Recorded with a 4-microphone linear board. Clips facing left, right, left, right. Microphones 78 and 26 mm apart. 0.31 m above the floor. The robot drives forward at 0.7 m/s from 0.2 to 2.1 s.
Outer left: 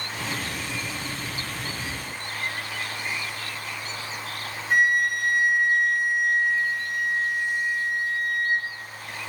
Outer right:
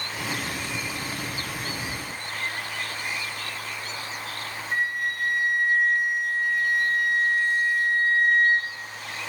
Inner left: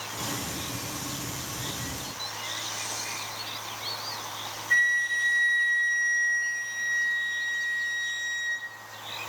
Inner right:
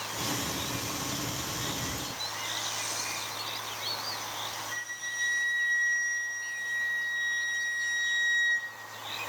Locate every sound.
1.9 s whispering: 50° right (ahead or behind), 2 m
4.7 s a flute: 80° left, 2 m